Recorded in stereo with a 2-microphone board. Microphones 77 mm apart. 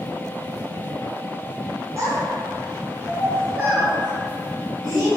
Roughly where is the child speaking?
Right.